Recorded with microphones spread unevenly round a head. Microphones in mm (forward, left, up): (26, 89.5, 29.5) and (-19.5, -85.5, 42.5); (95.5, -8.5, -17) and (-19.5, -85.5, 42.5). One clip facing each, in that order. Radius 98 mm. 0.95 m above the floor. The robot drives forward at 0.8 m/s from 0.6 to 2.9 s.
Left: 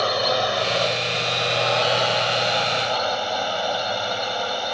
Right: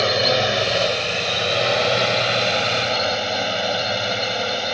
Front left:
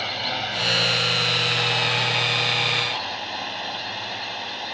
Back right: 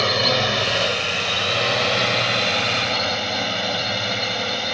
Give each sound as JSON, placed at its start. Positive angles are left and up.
{"t": 0.0, "sound": "a drone", "azimuth_deg": -170}